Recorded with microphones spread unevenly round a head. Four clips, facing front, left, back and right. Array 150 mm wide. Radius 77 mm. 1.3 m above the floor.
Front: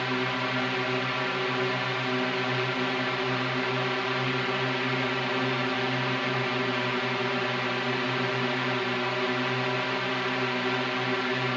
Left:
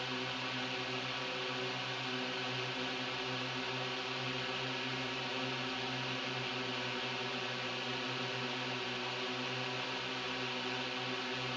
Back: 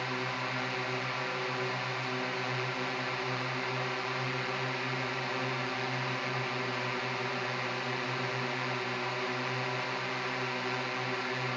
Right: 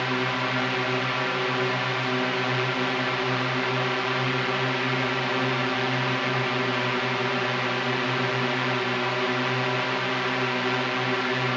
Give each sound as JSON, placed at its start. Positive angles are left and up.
{"t": 0.0, "sound": "a drone", "azimuth_deg": -60}